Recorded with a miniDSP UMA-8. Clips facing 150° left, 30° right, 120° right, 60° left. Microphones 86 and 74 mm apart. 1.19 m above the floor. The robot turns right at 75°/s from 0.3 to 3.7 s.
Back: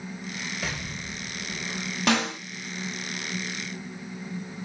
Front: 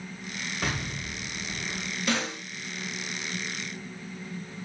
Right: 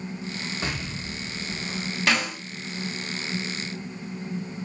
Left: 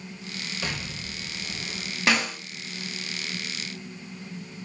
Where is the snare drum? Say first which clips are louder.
Back 5 dB, left 1 dB; 135° left, 2 m; by 2.4 s 160° left, 2 m.